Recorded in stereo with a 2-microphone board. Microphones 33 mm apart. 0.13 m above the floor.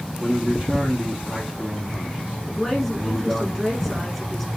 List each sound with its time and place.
0.2 s a man speaking: 20° right (ahead or behind), 5.5 m
2.5 s a woman speaking: centre (ahead or behind), 6.5 m